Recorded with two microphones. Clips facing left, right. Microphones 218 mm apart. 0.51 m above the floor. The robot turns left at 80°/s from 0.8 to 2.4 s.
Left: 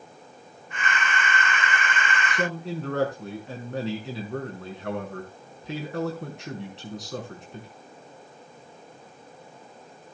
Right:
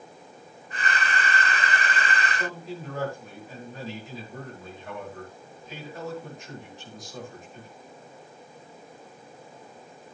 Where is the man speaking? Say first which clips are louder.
Left 5 dB; 75° left (ahead or behind), 5.5 m; by 7.7 s 80° left, 5.5 m.